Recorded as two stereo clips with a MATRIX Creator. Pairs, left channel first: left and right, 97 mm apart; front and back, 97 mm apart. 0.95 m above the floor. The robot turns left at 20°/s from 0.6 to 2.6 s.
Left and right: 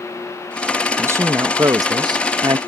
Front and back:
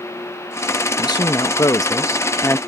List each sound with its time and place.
1.0 s a woman speaking: 30° right; by 2.6 s 60° right